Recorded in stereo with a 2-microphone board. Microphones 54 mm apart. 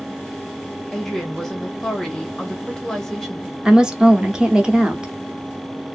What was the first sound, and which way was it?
A woman speaking, 10° left (ahead or behind).